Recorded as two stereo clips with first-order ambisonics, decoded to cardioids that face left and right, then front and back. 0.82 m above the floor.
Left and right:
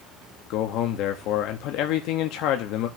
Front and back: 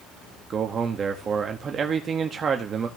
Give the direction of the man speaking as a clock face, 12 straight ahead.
8 o'clock.